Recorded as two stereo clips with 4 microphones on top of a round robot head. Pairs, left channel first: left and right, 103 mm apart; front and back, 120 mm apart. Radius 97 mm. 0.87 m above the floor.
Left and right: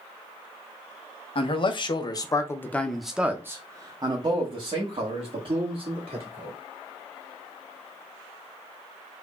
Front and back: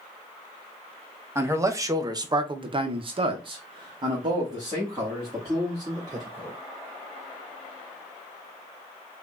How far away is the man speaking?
About 1.1 m.